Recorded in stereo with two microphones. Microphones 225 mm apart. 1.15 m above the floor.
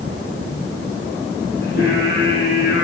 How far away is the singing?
About 8.5 m.